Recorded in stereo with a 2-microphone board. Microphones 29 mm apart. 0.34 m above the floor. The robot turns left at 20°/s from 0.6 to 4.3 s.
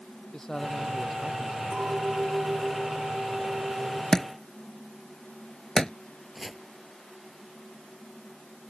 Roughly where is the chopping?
Centre.